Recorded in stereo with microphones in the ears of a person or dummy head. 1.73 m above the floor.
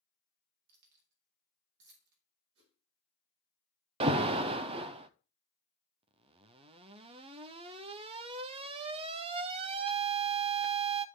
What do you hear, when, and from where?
0.7 s keys jangling: 60° right (ahead or behind), 3.5 m
2.5 s a whoosh: 65° right (ahead or behind), 6 m
4.0 s an alarm: 25° right (ahead or behind), 0.6 m